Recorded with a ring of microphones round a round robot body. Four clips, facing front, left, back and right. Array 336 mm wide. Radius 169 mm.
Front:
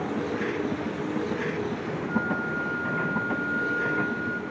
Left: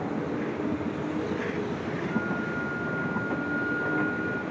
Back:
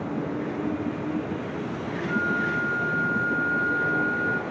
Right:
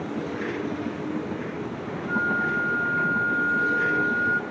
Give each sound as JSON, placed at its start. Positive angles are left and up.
{"t": 2.1, "sound": "a flute", "azimuth_deg": -100, "distance_m": 1.2}